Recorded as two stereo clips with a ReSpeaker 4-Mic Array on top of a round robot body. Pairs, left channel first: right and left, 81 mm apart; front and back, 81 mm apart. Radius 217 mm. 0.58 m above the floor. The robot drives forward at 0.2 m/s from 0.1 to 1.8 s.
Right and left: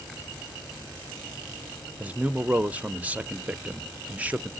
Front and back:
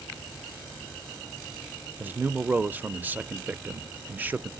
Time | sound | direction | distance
2.0 | a man speaking | 140° left | 0.6 m